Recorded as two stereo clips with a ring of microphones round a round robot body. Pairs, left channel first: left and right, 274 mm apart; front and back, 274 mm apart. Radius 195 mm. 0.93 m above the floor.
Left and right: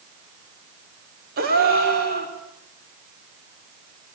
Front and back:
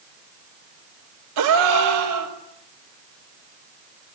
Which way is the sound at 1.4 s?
155° right.